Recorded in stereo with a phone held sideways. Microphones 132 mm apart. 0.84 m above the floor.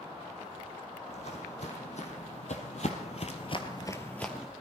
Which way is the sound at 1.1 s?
60° left (ahead or behind).